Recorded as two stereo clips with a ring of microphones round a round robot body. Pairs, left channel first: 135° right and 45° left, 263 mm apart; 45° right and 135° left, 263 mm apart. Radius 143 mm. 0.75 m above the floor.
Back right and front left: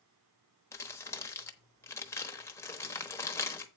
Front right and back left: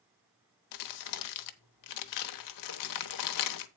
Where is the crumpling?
55° right, 0.9 m.